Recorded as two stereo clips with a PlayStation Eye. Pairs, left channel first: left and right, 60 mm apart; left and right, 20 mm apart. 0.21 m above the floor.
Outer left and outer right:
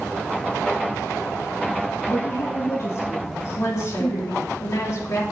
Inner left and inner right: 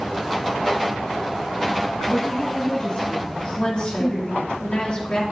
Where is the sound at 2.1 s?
55° left (ahead or behind), 5 m.